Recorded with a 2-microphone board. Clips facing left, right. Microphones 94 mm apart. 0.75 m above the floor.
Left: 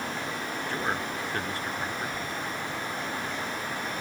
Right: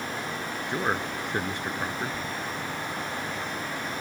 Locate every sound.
0.7 s a man speaking: 20° right (ahead or behind)